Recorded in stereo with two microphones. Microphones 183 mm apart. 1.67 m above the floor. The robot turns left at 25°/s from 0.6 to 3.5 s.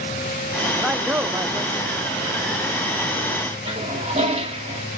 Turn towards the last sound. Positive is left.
turn(degrees=-35)  # may be behind; listen again after turning